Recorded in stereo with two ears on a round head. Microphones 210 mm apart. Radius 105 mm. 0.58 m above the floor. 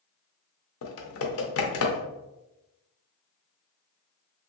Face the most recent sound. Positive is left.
turn(degrees=65)  # may be behind; listen again after turning